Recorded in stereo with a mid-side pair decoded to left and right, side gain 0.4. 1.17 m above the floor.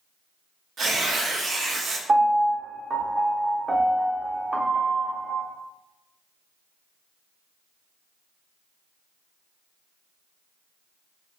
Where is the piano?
40° right, 1.0 m.